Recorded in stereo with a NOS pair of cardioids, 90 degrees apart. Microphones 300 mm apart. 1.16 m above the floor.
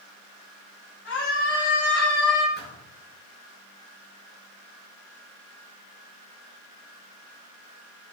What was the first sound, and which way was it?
A scream, 40° left.